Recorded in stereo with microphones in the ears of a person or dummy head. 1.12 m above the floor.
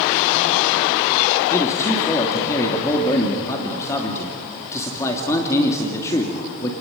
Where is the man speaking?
20° left (ahead or behind), 2.5 m.